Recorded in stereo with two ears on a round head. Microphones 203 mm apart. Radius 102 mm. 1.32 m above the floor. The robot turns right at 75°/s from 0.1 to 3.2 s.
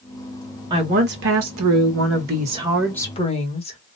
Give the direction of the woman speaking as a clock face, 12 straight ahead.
5 o'clock.